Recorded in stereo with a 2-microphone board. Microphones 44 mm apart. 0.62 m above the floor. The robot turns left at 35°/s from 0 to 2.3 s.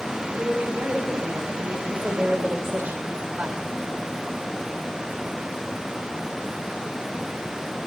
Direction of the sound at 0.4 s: 20° right.